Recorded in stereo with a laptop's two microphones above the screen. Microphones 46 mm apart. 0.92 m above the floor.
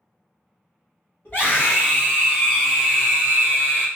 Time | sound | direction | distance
1.2 | a scream | 45° left (ahead or behind) | 1.5 m